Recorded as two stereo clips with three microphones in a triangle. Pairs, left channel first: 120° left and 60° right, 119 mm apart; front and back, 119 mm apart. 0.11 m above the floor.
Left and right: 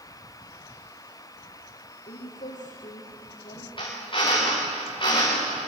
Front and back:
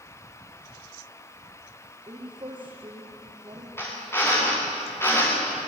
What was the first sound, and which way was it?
A woman speaking, 130° left.